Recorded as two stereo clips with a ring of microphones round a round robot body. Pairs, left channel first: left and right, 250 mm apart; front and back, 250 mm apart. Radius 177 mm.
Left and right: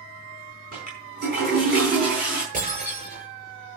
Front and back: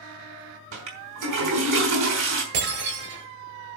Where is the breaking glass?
160° right, 7.5 m.